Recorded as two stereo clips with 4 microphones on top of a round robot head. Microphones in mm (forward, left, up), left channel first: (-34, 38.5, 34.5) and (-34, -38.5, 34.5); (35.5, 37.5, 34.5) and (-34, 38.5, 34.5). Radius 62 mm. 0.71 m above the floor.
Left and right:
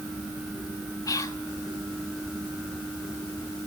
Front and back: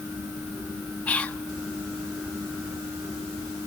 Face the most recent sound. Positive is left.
turn(degrees=65)